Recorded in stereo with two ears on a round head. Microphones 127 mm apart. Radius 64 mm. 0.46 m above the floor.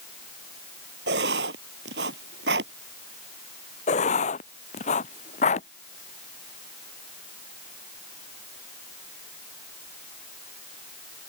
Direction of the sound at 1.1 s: 85° right.